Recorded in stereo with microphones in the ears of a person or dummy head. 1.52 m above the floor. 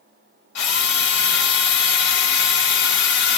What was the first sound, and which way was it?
A drill, 65° left (ahead or behind).